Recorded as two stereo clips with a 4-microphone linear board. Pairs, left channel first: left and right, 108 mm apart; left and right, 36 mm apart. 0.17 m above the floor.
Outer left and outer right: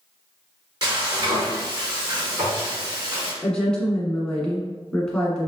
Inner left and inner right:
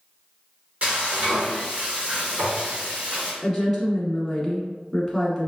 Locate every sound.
0.8 s frying: 45° right (ahead or behind), 1.8 m
3.4 s a woman speaking: 5° left (ahead or behind), 1.3 m